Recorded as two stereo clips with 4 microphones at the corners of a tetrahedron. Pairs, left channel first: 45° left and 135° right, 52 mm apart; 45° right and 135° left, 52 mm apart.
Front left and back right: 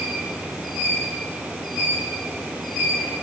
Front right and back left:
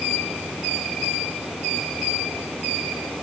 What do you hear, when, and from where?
Only background noise.